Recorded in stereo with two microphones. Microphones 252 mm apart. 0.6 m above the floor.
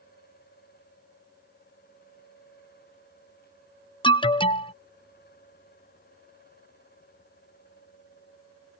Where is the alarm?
20° left (ahead or behind).